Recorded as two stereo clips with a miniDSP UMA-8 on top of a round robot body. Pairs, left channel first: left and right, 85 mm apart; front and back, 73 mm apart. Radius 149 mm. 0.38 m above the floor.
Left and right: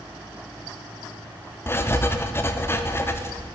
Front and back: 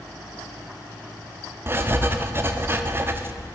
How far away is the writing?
About 0.8 m.